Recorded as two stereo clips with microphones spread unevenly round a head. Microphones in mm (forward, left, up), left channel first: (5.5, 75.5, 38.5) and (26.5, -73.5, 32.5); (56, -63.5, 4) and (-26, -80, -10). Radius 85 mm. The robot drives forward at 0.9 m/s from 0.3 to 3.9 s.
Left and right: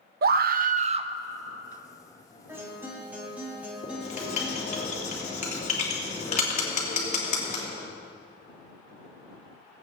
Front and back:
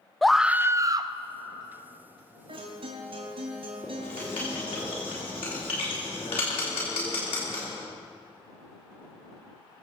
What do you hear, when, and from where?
0.2 s a scream: 80° right, 0.6 m; by 1.1 s 140° right, 0.9 m
2.5 s a guitar: 160° right, 2 m; by 4.8 s 165° right, 3 m
3.8 s writing: 55° left, 3 m